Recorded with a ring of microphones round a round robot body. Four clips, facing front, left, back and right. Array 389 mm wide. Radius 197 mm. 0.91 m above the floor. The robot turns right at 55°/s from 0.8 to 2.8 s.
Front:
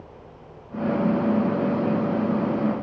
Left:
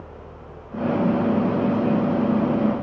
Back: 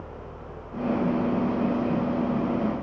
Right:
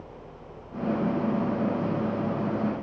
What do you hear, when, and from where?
Only background noise.